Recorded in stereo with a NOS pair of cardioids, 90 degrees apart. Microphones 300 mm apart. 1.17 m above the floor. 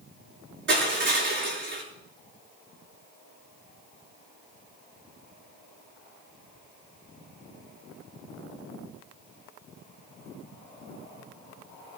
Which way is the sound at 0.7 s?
40° right.